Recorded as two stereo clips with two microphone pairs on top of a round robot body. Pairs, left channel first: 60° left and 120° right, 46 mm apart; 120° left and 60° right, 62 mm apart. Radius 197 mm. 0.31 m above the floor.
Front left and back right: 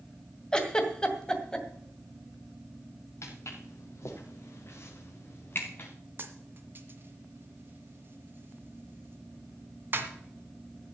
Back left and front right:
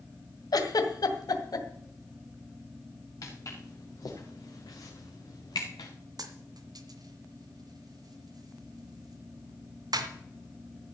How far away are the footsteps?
About 4 m.